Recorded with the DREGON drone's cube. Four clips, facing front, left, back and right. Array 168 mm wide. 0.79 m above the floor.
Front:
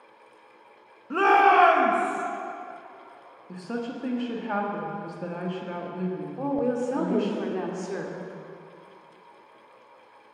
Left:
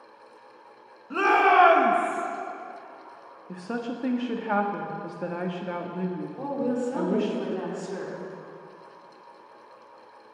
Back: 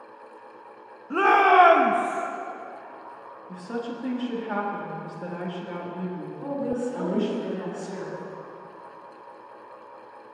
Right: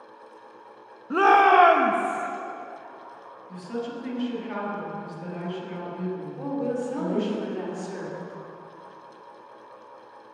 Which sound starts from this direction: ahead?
A woman speaking, at 6.4 s.